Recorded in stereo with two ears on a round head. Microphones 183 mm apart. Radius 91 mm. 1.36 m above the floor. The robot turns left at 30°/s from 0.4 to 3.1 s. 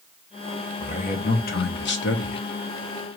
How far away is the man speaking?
About 1.3 m.